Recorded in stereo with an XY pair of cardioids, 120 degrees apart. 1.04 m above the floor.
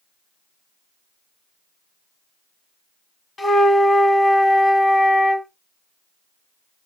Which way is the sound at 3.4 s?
20° left.